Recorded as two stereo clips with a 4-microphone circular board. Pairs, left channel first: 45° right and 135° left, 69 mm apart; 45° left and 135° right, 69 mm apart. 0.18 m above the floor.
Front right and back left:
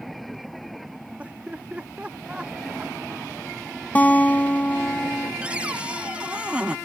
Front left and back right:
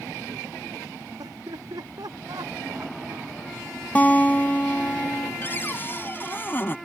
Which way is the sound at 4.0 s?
Straight ahead.